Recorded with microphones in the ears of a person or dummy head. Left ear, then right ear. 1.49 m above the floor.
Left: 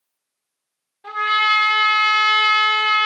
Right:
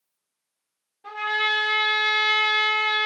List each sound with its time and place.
1.0 s a trumpet: 5° left (ahead or behind), 1.1 m